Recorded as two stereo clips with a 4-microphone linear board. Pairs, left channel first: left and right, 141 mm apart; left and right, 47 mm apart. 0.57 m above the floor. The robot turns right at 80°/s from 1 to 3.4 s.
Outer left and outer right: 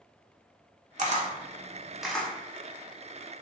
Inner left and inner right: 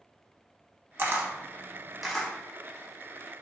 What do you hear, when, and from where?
1.0 s a camera shutter: 50° right (ahead or behind), 0.6 m; by 2.3 s 15° left (ahead or behind), 0.6 m